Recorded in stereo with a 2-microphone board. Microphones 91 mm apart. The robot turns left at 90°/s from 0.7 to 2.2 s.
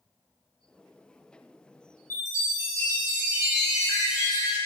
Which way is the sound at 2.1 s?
30° left (ahead or behind).